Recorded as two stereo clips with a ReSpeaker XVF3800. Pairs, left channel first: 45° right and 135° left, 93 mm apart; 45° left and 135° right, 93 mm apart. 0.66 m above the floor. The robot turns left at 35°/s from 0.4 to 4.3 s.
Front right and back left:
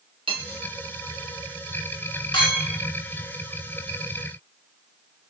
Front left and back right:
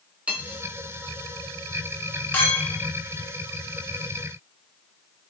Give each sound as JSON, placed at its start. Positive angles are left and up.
{"t": 0.3, "sound": "cutlery clinking", "azimuth_deg": 150, "distance_m": 0.9}
{"t": 2.3, "sound": "a clink", "azimuth_deg": -20, "distance_m": 1.2}